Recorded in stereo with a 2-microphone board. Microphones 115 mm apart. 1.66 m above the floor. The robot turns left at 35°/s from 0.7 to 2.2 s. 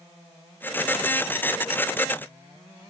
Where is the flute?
I don't hear a flute.